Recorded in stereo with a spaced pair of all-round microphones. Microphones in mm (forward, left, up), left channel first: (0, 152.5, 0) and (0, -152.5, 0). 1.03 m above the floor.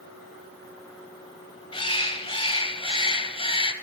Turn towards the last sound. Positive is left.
turn(degrees=15)  # may be behind; listen again after turning